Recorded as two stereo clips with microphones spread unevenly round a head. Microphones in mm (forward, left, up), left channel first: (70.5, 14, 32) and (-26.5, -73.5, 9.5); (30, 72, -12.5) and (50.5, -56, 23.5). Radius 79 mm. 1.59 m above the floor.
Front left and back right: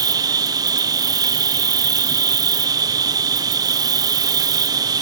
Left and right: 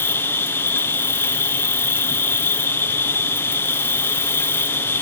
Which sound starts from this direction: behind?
An insect, at 0.0 s.